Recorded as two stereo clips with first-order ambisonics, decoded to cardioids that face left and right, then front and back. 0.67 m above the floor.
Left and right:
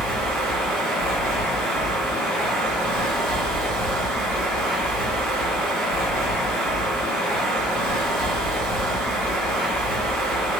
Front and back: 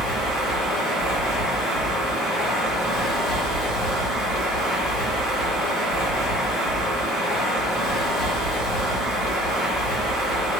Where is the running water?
100° right, 1.5 m.